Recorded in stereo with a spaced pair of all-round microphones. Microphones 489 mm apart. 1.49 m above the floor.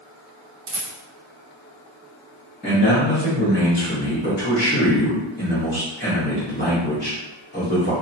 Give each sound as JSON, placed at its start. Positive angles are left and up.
{"t": 0.7, "sound": "a rattle", "side_deg": -55, "distance_m": 0.7}
{"t": 2.6, "sound": "a man speaking", "side_deg": 20, "distance_m": 1.1}